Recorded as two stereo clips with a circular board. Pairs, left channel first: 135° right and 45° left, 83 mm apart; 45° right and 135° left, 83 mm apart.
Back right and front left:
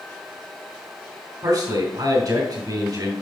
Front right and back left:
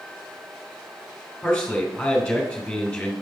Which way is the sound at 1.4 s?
30° left.